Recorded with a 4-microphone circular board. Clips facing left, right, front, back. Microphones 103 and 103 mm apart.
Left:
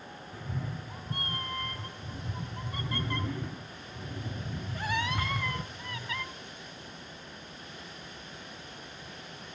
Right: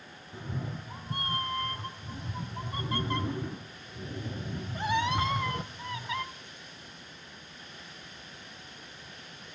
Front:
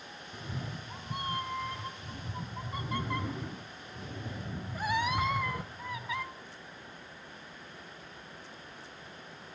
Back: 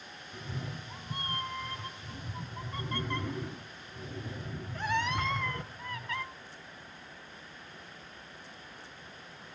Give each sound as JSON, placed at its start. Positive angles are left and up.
{"t": 0.3, "sound": "a cat meowing", "azimuth_deg": -70, "distance_m": 0.6}